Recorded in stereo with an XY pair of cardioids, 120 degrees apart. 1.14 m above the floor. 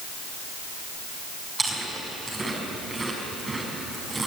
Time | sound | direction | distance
1.6 | chewing | 25° right | 6 m